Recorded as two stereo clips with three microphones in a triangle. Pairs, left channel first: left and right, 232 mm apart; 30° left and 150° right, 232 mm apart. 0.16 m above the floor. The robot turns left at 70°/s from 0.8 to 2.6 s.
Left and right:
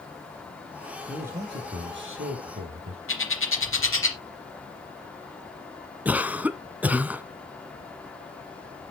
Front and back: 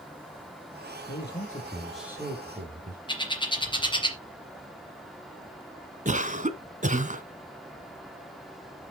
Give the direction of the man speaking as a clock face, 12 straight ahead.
12 o'clock.